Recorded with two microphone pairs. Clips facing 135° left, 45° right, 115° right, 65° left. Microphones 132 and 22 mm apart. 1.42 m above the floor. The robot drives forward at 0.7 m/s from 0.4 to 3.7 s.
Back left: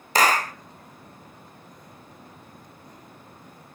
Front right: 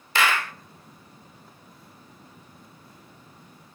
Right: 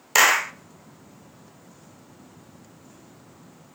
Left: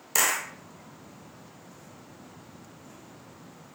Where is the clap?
175° right, 0.6 m.